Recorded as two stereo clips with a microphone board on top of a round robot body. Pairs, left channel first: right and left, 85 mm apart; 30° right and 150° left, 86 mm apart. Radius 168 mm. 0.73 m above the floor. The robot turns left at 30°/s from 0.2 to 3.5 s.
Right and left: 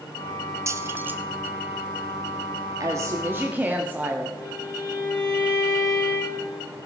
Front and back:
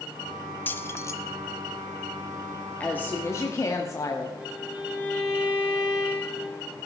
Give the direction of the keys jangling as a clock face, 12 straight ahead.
11 o'clock.